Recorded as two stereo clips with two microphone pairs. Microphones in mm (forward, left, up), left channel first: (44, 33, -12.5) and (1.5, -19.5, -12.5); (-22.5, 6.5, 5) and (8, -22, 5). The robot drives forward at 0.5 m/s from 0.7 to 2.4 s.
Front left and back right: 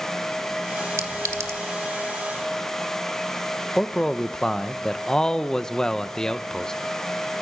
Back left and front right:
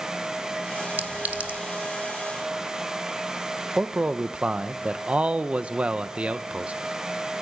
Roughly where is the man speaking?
Ahead.